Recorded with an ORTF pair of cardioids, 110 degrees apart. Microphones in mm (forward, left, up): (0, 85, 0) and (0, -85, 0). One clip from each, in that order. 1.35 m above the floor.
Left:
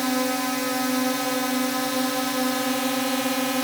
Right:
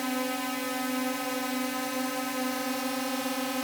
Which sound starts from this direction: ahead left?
A drone, at 0.0 s.